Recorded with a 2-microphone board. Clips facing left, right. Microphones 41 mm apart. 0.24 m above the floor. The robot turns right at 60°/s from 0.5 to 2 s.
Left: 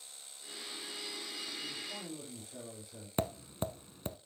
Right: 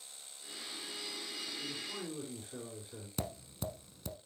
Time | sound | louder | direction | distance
1.6 | a man speaking | right 1 dB | 15° right (ahead or behind) | 3.5 m
3.2 | tapping | left 6 dB | 35° left (ahead or behind) | 0.6 m